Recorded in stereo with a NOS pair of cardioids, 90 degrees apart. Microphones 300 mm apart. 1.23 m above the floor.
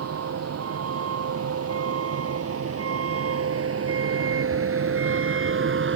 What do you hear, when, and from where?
0.0 s a vehicle: 55° right; by 6.0 s 40° right